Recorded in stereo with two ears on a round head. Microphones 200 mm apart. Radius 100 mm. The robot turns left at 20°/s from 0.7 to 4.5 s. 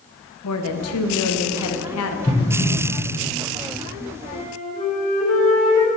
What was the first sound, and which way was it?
A woman speaking, 80° left.